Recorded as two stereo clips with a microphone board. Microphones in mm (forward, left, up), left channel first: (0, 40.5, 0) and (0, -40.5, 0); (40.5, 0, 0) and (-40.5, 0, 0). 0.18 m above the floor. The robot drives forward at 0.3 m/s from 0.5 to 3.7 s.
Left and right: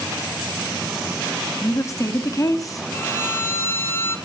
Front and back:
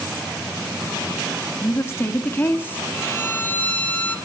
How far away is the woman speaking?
About 1.8 m.